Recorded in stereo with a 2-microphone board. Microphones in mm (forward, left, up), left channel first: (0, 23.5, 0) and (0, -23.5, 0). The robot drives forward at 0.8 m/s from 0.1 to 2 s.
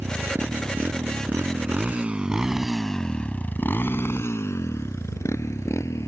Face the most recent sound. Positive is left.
turn(degrees=85)